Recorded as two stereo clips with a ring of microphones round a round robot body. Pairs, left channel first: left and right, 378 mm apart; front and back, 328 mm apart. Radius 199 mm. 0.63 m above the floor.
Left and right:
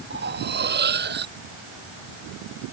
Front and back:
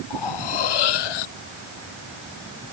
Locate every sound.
0.1 s cutlery clinking: 25° right